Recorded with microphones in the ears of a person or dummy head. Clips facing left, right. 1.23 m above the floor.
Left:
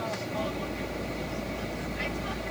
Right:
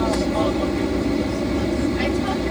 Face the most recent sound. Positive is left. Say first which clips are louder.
# right 13 dB
turn(degrees=-65)  # may be behind; listen again after turning